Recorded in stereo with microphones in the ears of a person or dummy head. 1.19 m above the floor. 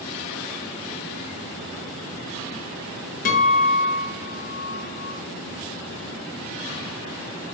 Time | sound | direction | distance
3.2 | a guitar | 40° left (ahead or behind) | 0.7 m